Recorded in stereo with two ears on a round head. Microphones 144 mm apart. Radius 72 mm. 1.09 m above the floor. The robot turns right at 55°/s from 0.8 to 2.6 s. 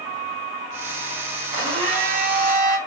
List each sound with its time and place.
1.5 s a blender: 160° right, 5 m; by 2.8 s 100° right, 5 m